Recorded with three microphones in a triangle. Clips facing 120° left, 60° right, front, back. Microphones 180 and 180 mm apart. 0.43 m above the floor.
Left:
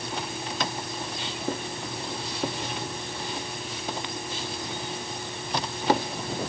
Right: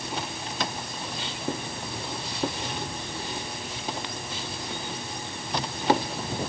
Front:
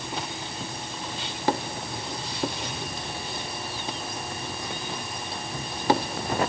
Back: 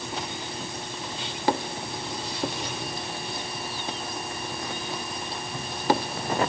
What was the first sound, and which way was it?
Only background noise.